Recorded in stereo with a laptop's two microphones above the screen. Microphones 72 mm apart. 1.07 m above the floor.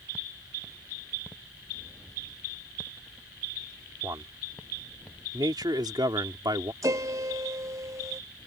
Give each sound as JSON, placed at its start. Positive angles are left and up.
{"t": 4.0, "sound": "a man speaking", "side_deg": -60}
{"t": 6.8, "sound": "a piano", "side_deg": -50}